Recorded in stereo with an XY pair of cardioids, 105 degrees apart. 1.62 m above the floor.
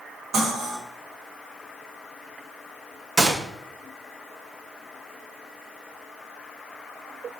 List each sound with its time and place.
0.3 s cutlery clinking: 65° right, 4.5 m
3.2 s a gunshot: 35° right, 1.5 m